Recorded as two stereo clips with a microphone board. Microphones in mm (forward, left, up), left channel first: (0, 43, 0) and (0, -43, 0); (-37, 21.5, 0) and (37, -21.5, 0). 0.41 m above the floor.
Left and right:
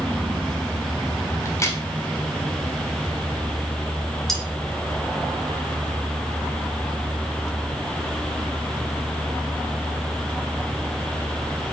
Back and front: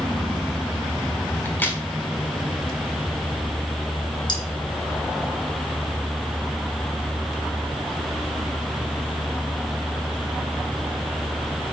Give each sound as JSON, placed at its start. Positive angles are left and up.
{"t": 1.4, "sound": "a crack", "azimuth_deg": 100, "distance_m": 1.5}
{"t": 4.3, "sound": "cutlery clinking", "azimuth_deg": 180, "distance_m": 1.9}